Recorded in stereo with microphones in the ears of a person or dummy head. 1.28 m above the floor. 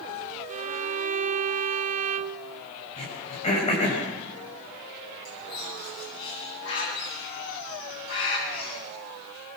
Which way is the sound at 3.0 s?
40° left (ahead or behind).